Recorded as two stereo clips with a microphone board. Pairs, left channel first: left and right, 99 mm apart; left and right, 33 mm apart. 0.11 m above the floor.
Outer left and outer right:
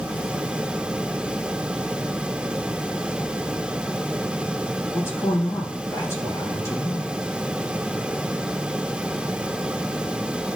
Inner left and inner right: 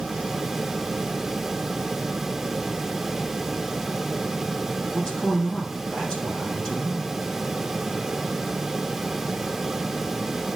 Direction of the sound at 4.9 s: 30° left (ahead or behind).